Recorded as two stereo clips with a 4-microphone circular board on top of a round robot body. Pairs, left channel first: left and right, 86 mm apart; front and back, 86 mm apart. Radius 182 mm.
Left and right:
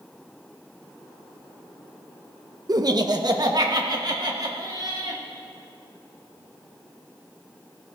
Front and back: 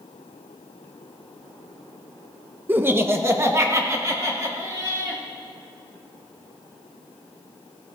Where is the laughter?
120° right, 0.9 m; by 5.2 s 130° right, 2.5 m.